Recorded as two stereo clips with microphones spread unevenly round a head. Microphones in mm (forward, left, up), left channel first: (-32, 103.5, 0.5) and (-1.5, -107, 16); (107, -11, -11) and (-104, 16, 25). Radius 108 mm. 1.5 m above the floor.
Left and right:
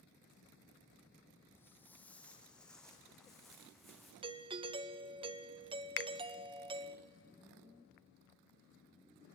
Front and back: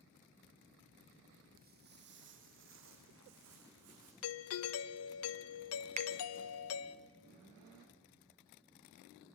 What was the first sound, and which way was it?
Footsteps, straight behind.